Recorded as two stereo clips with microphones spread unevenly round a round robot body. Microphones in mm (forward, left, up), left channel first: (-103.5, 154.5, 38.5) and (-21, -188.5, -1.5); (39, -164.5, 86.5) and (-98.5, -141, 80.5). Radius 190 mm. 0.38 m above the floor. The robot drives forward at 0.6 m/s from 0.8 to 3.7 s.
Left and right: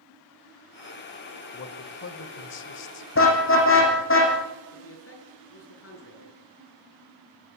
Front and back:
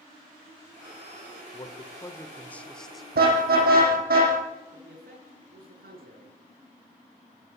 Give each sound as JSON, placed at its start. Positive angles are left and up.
{"t": 1.5, "sound": "a man speaking", "azimuth_deg": 50, "distance_m": 2.0}
{"t": 3.1, "sound": "a car horn", "azimuth_deg": 155, "distance_m": 7.5}
{"t": 4.7, "sound": "a man speaking", "azimuth_deg": 155, "distance_m": 7.5}